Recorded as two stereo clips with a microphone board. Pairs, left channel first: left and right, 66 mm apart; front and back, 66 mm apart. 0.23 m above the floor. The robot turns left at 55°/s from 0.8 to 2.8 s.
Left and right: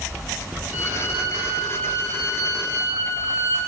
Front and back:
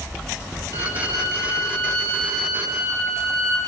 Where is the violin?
10° right, 6.5 m; by 3.6 s 120° right, 6.5 m.